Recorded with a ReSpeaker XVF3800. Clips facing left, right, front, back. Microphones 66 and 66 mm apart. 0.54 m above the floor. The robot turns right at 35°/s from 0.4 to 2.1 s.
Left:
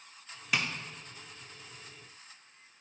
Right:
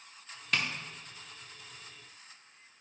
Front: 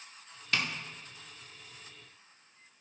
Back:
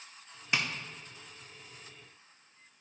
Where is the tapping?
155° left, 0.7 m; by 0.7 s 160° left, 0.7 m.